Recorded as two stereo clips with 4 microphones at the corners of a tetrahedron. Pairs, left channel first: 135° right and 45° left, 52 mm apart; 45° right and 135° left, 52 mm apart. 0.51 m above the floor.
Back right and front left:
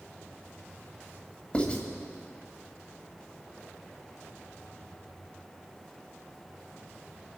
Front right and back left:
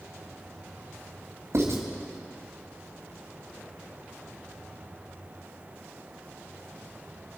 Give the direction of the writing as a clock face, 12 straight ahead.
7 o'clock.